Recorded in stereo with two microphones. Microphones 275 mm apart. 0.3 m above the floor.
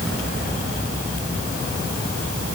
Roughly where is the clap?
I don't hear a clap.